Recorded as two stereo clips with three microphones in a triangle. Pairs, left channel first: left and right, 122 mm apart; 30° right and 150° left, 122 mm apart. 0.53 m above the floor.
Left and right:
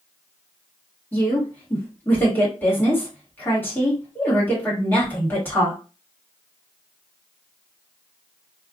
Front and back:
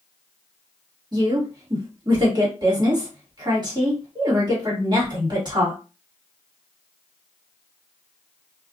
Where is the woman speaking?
150° left, 1.4 m.